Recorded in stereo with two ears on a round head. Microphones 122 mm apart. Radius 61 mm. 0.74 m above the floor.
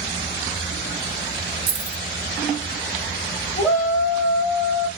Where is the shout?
20° left (ahead or behind), 1.0 m.